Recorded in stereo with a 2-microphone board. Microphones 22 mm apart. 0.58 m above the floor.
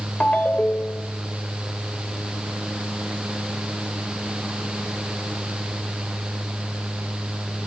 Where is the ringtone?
70° left (ahead or behind), 1.5 m.